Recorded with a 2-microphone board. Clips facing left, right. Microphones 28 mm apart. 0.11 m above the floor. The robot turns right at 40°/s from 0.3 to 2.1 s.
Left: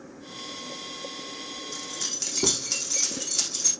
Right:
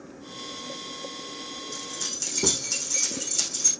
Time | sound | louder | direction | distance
1.7 | keys jangling | left 1 dB | 10° left (ahead or behind) | 5 m